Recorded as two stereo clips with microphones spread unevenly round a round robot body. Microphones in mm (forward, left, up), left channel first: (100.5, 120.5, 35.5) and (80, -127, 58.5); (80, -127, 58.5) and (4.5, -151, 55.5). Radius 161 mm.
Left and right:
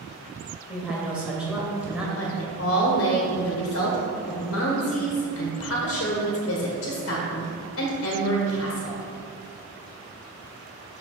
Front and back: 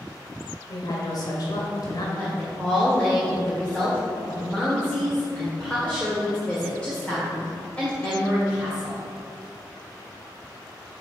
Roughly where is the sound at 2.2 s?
Left.